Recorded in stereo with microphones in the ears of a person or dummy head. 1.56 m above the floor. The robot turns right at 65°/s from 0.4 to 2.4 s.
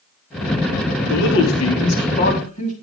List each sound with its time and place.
1.1 s a man speaking: 60° left, 4 m; by 2.7 s 145° left, 4 m